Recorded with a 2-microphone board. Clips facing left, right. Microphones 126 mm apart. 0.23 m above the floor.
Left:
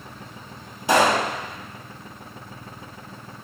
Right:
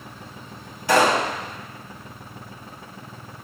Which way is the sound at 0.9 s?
20° left (ahead or behind).